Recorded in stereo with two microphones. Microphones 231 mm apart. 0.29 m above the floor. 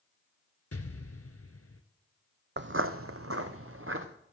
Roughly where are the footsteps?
Right.